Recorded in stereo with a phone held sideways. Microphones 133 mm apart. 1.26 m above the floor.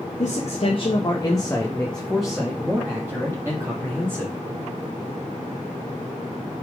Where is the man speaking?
65° left (ahead or behind), 1.2 m; by 4.3 s 25° right (ahead or behind), 2.5 m.